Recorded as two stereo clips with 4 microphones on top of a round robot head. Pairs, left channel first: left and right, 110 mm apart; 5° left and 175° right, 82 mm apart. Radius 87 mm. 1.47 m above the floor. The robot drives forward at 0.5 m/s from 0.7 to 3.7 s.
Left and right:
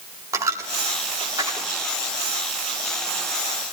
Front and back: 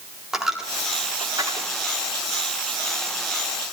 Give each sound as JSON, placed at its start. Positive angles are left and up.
{"t": 0.3, "sound": "a dropped coin", "azimuth_deg": -90, "distance_m": 1.0}